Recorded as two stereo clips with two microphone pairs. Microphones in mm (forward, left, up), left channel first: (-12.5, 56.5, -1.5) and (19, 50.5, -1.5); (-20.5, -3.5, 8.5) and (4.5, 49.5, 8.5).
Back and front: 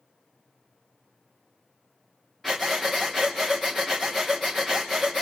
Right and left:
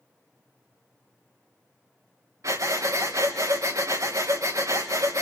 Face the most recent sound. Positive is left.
turn(degrees=85)